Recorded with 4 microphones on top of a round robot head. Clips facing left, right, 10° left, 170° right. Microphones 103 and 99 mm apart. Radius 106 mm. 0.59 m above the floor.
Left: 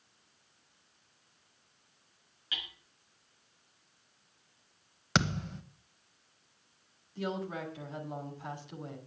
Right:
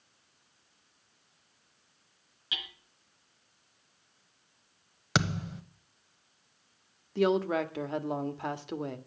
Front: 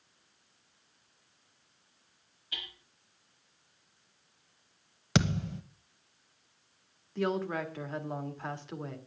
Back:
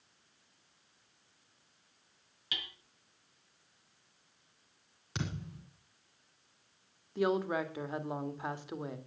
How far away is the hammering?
About 3.5 m.